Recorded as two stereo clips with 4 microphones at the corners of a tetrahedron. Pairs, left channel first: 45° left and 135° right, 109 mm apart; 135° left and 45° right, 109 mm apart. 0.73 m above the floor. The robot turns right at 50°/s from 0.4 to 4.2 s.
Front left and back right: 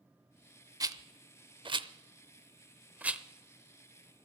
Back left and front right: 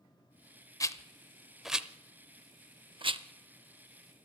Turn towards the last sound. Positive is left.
turn(degrees=-5)